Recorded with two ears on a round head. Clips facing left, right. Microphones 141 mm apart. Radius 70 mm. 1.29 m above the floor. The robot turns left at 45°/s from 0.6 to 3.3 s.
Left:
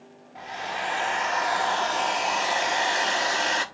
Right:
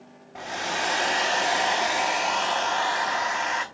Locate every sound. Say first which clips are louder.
0.3 s a hair dryer: right 2 dB; 105° right, 1.2 m; by 3.6 s 135° left, 1.2 m